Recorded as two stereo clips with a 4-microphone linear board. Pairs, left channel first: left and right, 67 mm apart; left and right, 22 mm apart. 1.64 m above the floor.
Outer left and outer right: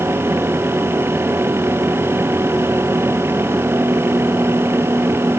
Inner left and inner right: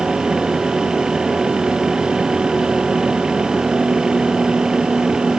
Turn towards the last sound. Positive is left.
No sound to turn to.